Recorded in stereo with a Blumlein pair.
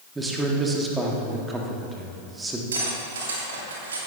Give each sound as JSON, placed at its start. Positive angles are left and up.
{"t": 0.1, "sound": "a man speaking", "azimuth_deg": -10, "distance_m": 1.9}
{"t": 2.7, "sound": "cutlery clinking", "azimuth_deg": -65, "distance_m": 2.5}